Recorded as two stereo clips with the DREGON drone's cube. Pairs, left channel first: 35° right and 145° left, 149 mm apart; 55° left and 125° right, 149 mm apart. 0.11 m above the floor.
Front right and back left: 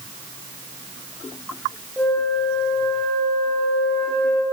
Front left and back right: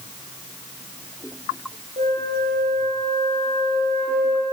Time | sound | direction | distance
2.0 | a flute | 115° right | 9.5 m